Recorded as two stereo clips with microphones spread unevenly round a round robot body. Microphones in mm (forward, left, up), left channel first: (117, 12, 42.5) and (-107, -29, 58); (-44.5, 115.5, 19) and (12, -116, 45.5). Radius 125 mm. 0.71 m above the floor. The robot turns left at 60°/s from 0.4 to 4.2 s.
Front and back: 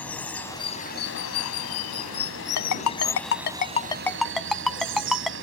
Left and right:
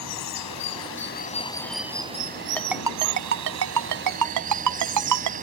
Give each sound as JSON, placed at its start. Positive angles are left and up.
{"t": 0.0, "sound": "running water", "azimuth_deg": 95}
{"t": 2.6, "sound": "a ringtone", "azimuth_deg": 20}